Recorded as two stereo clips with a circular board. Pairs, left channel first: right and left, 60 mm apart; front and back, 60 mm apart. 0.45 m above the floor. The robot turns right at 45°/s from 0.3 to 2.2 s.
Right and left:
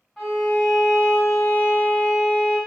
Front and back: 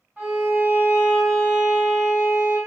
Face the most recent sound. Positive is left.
turn(degrees=-85)